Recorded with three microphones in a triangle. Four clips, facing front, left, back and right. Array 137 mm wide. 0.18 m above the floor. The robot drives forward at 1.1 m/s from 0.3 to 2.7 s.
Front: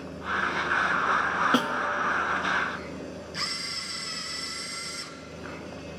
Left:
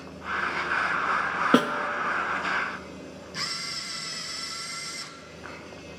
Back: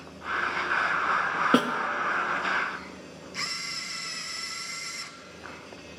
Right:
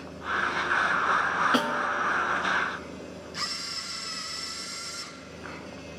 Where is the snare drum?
115° left, 1.0 m; by 1.9 s 135° left, 1.2 m.